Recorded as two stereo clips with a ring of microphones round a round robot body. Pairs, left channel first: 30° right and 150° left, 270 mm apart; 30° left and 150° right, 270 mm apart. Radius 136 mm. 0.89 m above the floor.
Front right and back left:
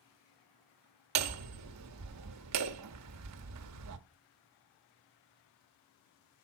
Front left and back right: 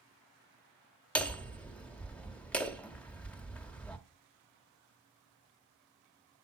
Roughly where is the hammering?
Behind left.